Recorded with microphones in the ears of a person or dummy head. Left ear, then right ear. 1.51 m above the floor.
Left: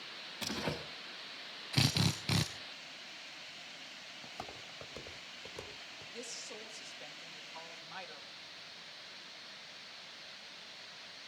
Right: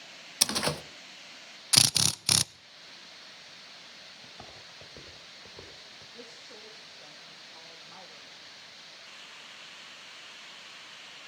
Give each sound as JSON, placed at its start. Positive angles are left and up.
{"t": 0.4, "sound": "a door slam", "side_deg": -60, "distance_m": 1.5}
{"t": 1.7, "sound": "a drill", "side_deg": -60, "distance_m": 0.6}
{"t": 4.2, "sound": "footsteps", "side_deg": 70, "distance_m": 5.0}
{"t": 6.1, "sound": "a woman speaking", "side_deg": 70, "distance_m": 3.0}